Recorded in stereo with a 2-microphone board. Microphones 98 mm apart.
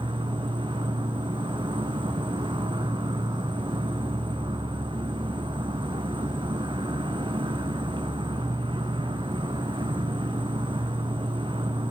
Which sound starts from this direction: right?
An insect, at 0.0 s.